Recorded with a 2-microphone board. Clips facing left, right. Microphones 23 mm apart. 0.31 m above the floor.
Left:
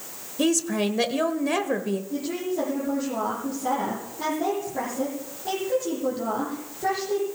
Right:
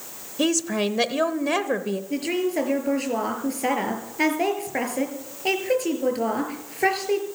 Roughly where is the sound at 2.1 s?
Right.